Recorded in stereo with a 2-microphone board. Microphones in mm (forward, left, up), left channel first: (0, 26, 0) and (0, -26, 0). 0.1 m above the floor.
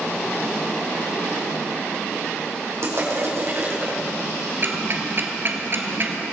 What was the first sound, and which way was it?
Crushing, 60° right (ahead or behind).